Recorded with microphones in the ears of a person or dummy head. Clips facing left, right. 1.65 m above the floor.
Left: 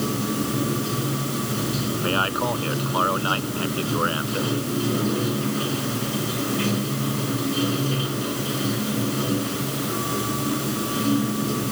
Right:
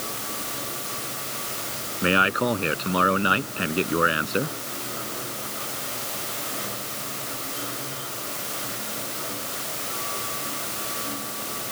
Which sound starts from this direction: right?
A man speaking, at 2.0 s.